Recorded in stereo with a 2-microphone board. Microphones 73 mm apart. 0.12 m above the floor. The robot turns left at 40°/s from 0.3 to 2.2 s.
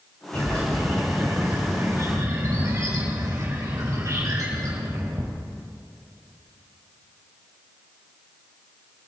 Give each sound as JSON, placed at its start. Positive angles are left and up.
{"t": 0.3, "sound": "a bird", "azimuth_deg": 25, "distance_m": 6.0}